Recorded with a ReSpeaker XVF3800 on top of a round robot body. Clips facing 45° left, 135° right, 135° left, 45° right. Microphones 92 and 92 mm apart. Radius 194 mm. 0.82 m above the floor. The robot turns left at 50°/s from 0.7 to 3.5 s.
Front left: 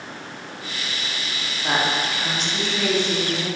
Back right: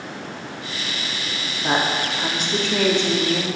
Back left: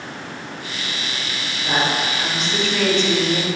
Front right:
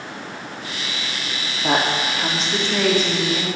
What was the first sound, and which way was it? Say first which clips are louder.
A woman speaking: back right 1 dB, front right 1 dB; 60° right.